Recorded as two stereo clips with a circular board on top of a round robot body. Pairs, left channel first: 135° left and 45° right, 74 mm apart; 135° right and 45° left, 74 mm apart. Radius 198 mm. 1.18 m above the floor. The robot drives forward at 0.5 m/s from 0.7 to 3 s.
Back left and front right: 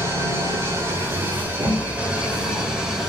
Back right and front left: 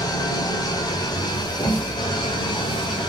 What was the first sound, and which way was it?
An engine running, 100° right.